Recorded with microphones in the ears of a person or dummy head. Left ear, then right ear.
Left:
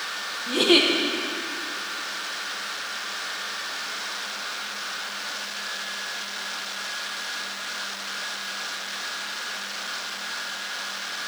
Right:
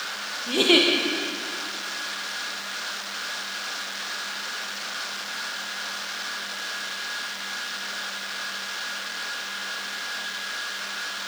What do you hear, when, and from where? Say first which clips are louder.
0.5 s a giggle: even; 10° right (ahead or behind), 1.4 m